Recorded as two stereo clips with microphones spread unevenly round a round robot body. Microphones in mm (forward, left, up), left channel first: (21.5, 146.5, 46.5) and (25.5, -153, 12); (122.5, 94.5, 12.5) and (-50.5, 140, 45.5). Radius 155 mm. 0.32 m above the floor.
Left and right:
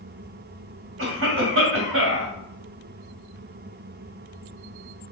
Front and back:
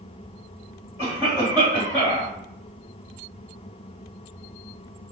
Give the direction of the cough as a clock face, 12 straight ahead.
3 o'clock.